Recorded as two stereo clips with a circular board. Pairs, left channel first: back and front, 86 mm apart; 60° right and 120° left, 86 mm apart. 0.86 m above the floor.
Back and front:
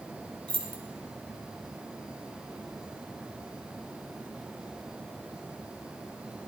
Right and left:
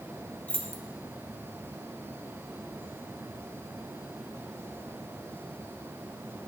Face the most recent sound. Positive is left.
turn(degrees=15)